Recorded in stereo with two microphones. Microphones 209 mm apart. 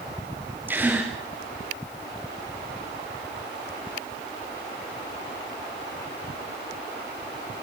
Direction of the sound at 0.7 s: 10° right (ahead or behind).